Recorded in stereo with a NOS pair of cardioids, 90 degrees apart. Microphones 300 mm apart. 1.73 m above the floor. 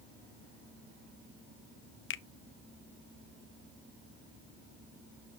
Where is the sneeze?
No sneeze in this recording.